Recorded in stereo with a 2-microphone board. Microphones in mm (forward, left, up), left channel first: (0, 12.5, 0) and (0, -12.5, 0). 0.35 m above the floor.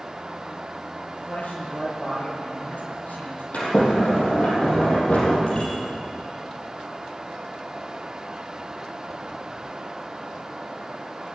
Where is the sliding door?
60° left (ahead or behind), 4.5 m.